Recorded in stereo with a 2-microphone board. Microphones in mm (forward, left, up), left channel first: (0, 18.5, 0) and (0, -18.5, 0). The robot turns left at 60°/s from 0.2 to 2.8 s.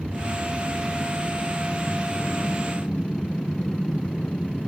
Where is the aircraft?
65° right (ahead or behind); by 4.7 s 40° left (ahead or behind).